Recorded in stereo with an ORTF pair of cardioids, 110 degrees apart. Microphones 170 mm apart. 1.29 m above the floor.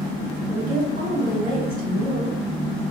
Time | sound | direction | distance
0.5 | a woman speaking | 55° right | 1.8 m